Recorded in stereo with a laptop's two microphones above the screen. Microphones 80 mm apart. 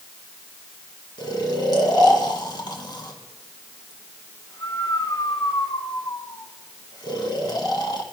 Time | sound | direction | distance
1.2 | snoring | 60° left (ahead or behind) | 1.5 m